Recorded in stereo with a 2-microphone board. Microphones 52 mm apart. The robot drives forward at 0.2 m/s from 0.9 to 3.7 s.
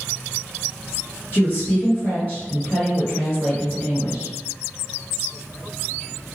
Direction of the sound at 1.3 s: 40° left (ahead or behind).